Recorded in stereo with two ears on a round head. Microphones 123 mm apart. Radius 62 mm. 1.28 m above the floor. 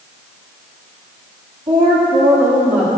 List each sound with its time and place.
1.7 s a woman speaking: 35° right (ahead or behind), 3 m; by 2.9 s 5° right (ahead or behind), 3.5 m